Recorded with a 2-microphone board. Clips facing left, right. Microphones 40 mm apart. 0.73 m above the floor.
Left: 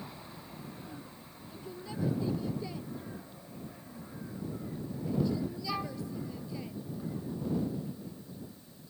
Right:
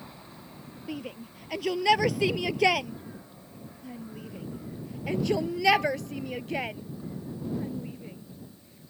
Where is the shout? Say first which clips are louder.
Right 10 dB; 80° right; by 8.9 s 55° right (ahead or behind).